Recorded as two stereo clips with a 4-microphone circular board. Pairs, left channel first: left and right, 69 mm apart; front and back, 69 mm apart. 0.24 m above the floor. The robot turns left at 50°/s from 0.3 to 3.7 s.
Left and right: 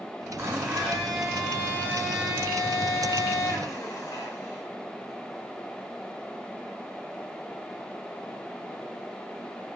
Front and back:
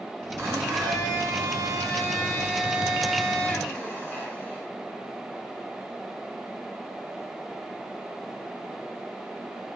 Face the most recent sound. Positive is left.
turn(degrees=60)